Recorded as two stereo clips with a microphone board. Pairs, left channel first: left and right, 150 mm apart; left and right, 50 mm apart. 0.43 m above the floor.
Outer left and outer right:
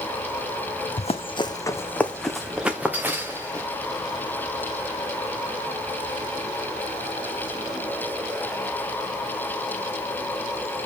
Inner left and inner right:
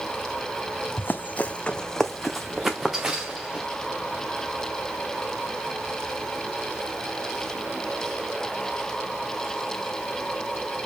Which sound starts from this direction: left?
Running footsteps, at 1.0 s.